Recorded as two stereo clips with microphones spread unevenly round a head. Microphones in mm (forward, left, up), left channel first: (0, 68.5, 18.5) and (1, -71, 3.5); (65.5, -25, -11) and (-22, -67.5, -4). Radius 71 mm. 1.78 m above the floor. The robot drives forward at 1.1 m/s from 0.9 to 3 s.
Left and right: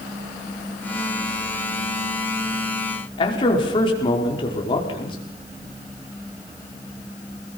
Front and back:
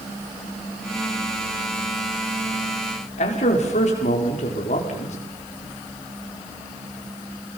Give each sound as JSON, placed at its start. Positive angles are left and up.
{"t": 3.2, "sound": "a man speaking", "azimuth_deg": 35, "distance_m": 5.0}